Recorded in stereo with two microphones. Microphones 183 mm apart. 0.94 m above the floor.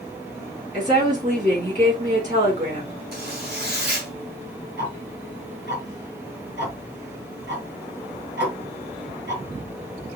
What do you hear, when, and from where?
0.7 s a woman speaking: 45° right (ahead or behind), 3 m
3.1 s a zipper: 60° right (ahead or behind), 2.5 m
4.8 s ticking: 65° right (ahead or behind), 4.5 m